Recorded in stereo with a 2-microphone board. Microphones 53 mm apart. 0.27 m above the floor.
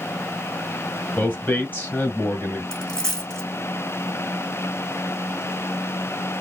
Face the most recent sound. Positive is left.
turn(degrees=15)  # may be behind; listen again after turning